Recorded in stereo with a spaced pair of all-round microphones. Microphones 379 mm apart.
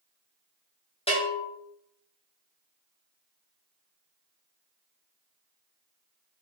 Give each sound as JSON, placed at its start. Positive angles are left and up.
{"t": 1.1, "sound": "a bell", "side_deg": 15, "distance_m": 1.0}